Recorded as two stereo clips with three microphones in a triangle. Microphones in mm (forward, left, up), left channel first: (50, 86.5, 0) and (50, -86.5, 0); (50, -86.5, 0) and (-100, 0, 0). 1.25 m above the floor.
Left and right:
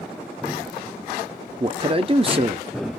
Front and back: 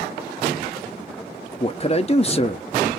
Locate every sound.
1.6 s a man speaking: 55° right, 0.6 m